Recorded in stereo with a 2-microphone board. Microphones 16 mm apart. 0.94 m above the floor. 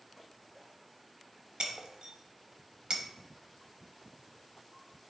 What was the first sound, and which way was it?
Breaking glass, 45° right (ahead or behind).